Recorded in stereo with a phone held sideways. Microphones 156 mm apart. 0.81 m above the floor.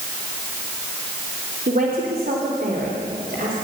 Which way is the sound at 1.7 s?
65° right (ahead or behind).